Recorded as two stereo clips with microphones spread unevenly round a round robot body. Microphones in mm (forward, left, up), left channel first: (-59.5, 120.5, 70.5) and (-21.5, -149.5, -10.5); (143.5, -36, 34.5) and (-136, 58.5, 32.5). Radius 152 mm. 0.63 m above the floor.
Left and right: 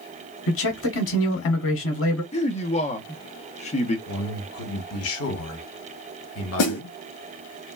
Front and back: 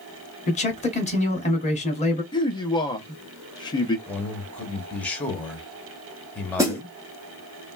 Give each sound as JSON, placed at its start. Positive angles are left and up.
{"t": 0.5, "sound": "a man speaking", "azimuth_deg": 45, "distance_m": 1.2}
{"t": 2.3, "sound": "a man speaking", "azimuth_deg": 25, "distance_m": 0.8}
{"t": 4.1, "sound": "a man speaking", "azimuth_deg": 65, "distance_m": 1.3}
{"t": 6.6, "sound": "a snare drum", "azimuth_deg": 85, "distance_m": 1.0}